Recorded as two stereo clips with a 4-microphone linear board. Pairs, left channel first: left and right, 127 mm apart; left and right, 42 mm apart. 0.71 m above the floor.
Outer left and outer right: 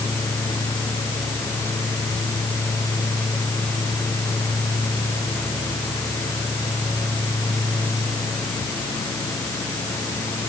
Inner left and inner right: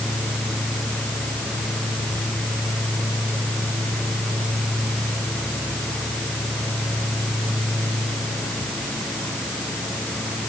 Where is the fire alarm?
I don't hear a fire alarm.